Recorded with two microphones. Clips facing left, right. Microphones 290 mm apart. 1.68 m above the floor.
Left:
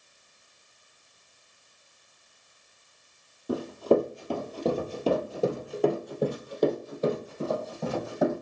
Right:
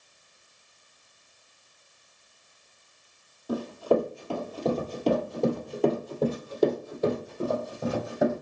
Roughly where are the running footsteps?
Left.